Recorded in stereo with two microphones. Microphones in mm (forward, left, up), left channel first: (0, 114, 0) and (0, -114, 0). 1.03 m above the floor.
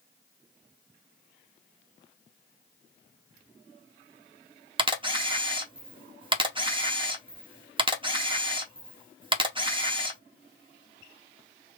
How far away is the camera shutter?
About 0.7 m.